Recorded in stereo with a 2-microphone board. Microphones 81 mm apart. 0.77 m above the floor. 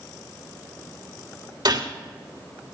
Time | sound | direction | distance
1.6 | a gunshot | 60° right (ahead or behind) | 3 m